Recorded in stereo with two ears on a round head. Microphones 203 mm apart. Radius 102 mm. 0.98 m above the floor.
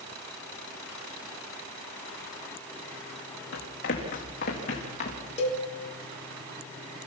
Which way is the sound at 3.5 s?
40° left (ahead or behind).